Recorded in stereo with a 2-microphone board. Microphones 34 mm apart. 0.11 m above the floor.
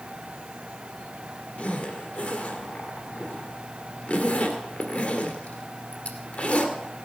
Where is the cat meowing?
I don't hear a cat meowing.